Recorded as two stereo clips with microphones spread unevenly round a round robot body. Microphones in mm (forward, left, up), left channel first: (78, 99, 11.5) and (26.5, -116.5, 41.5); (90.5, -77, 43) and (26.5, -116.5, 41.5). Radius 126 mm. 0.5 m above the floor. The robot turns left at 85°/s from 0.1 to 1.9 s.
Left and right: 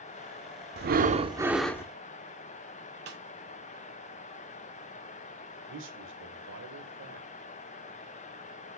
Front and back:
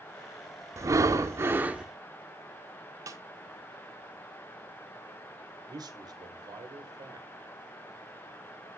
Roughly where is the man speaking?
Behind right.